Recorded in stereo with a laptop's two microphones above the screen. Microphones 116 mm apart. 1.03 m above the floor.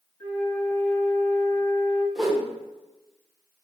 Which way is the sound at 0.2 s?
25° left (ahead or behind).